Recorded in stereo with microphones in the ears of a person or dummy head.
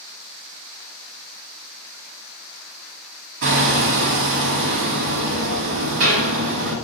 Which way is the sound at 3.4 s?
50° right (ahead or behind).